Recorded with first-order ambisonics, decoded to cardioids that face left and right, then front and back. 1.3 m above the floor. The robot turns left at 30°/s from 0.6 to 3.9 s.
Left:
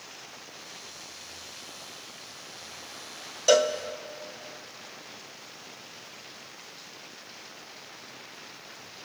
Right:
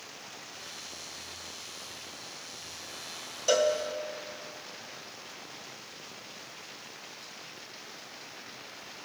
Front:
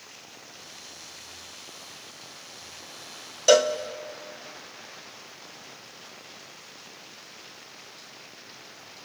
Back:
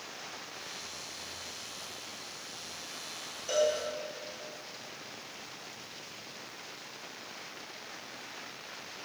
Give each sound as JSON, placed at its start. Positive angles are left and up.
{"t": 3.5, "sound": "a cowbell", "azimuth_deg": 20, "distance_m": 0.6}